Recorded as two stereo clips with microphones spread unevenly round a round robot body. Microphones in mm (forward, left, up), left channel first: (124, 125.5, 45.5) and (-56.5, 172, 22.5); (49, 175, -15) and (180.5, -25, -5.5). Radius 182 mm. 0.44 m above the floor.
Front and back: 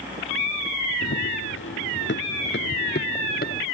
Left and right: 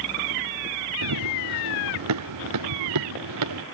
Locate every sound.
1.0 s running footsteps: 70° right; by 3.6 s 80° right